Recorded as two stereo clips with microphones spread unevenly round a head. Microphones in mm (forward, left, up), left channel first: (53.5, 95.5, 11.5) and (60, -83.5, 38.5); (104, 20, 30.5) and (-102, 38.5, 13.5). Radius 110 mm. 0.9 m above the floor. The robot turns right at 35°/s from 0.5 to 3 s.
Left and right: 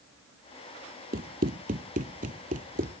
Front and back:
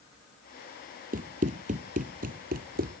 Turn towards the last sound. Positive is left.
turn(degrees=-130)